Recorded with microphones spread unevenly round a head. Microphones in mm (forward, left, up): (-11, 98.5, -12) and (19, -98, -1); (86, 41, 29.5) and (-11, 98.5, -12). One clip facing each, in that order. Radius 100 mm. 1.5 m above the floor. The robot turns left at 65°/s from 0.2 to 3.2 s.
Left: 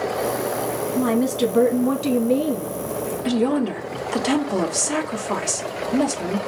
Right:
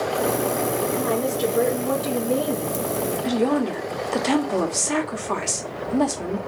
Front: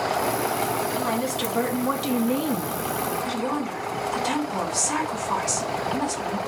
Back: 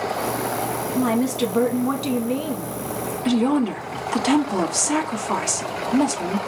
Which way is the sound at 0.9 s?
120° left.